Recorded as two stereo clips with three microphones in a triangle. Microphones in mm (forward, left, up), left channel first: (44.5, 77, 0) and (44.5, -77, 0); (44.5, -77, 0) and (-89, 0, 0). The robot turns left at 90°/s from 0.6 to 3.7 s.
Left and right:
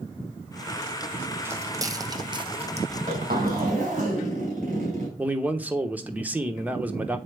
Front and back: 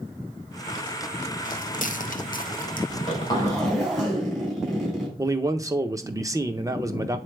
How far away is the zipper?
About 4 m.